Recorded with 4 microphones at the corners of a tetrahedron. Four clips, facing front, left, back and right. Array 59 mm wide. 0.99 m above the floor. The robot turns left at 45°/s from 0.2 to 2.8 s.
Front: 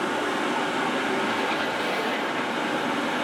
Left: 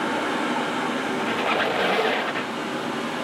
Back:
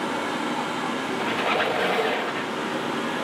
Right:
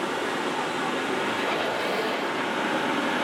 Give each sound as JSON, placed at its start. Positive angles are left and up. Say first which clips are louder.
{"t": 0.0, "sound": "running water", "louder": "left 3 dB, front 1 dB", "azimuth_deg": 70, "distance_m": 1.4}
{"t": 1.2, "sound": "a squeak", "louder": "left 3 dB, back 2 dB", "azimuth_deg": 145, "distance_m": 0.6}